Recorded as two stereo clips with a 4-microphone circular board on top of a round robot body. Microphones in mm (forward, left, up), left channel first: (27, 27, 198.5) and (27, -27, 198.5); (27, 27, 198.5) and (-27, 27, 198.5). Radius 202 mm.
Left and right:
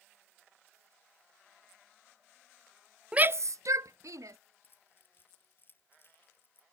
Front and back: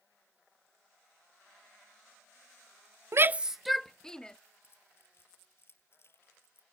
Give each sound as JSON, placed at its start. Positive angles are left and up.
{"t": 3.1, "sound": "a shout", "azimuth_deg": -160}
{"t": 4.6, "sound": "keys jangling", "azimuth_deg": 40}